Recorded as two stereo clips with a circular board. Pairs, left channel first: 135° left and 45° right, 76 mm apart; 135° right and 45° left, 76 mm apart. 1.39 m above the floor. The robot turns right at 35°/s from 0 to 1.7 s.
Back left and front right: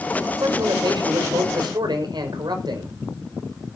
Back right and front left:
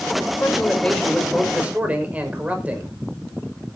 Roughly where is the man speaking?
Right.